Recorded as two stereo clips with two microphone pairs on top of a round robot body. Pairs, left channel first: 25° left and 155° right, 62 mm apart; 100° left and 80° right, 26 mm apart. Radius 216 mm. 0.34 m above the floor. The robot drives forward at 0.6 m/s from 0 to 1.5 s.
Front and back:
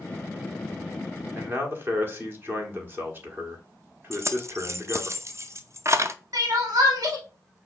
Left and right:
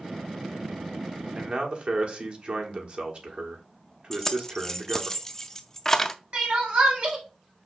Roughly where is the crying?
Behind right.